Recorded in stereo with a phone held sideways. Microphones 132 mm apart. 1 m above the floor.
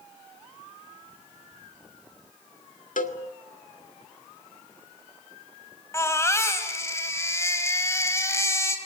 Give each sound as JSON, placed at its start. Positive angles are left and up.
{"t": 3.0, "sound": "a cowbell", "side_deg": 85, "distance_m": 1.6}
{"t": 5.9, "sound": "a baby crying", "side_deg": 20, "distance_m": 3.0}